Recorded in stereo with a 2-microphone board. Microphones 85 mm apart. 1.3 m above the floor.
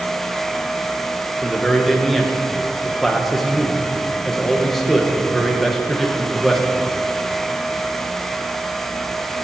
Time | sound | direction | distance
1.4 | a man speaking | centre (ahead or behind) | 1.5 m